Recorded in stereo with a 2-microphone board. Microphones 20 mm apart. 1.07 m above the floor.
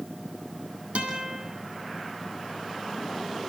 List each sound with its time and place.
0.9 s a guitar: 80° right, 9 m